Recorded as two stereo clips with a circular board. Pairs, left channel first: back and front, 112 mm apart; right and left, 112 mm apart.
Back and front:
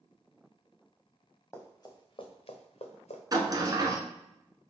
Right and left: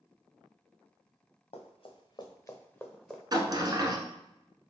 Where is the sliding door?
45° left, 0.7 m.